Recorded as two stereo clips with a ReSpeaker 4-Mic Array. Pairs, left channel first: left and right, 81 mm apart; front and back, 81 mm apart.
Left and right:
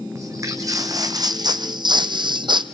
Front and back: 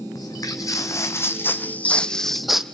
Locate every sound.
0.1 s footsteps: 40° right, 1.7 m; by 2.6 s 95° right, 1.0 m